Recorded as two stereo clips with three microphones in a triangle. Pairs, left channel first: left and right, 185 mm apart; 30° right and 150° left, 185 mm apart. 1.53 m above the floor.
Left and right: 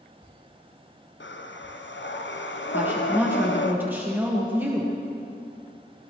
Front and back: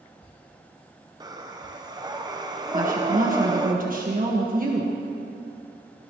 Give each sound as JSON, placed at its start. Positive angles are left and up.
{"t": 1.2, "sound": "breathing", "azimuth_deg": 85, "distance_m": 0.9}
{"t": 2.7, "sound": "a woman speaking", "azimuth_deg": -170, "distance_m": 1.6}